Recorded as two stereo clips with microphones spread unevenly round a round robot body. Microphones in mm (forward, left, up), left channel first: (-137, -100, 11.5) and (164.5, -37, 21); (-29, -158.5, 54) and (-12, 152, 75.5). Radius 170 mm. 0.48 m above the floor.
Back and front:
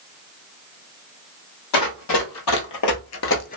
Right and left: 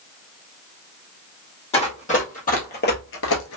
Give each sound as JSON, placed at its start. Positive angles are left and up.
{"t": 1.7, "sound": "running footsteps", "azimuth_deg": -165, "distance_m": 1.4}